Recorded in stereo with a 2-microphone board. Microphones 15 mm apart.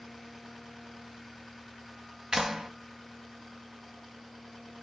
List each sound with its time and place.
2.3 s a clap: 50° right (ahead or behind), 1.2 m